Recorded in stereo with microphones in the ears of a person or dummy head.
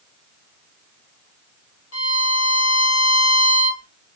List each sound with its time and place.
1.9 s a violin: 75° left (ahead or behind), 1.6 m